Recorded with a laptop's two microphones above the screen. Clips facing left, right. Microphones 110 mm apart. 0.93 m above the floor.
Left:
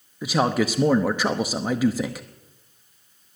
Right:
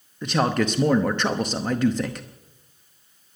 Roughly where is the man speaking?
Centre.